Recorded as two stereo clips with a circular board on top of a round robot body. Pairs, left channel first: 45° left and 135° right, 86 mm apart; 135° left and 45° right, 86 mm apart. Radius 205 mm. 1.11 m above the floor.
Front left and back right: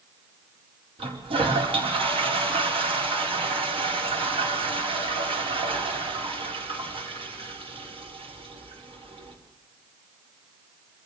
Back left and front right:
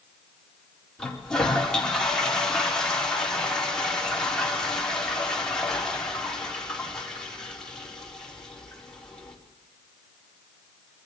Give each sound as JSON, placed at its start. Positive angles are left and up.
{"t": 1.0, "sound": "a toilet flushing", "azimuth_deg": -140, "distance_m": 4.5}